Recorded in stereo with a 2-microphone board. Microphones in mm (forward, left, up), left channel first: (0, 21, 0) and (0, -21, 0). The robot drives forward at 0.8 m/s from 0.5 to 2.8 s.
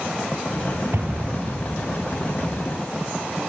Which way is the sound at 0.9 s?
60° right (ahead or behind).